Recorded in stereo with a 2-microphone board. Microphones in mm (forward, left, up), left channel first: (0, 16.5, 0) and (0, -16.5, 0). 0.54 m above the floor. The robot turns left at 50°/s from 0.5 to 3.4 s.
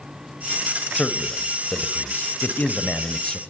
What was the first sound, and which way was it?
A man speaking, 30° left (ahead or behind).